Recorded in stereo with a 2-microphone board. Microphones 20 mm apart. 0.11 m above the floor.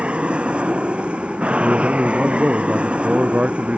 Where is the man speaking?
75° right (ahead or behind).